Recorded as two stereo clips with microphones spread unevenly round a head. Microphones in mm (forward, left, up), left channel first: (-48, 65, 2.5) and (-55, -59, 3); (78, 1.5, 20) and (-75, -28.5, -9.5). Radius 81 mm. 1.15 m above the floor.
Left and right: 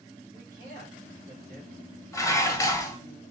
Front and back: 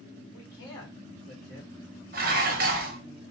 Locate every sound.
0.3 s a man speaking: 55° right, 1.5 m
2.1 s dishes clattering: 155° left, 0.8 m